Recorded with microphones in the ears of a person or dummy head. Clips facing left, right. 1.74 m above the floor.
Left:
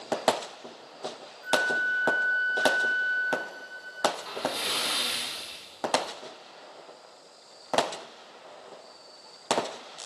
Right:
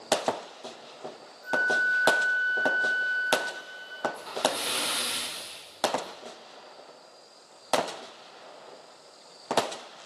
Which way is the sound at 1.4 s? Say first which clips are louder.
Left 1 dB; 70° left (ahead or behind).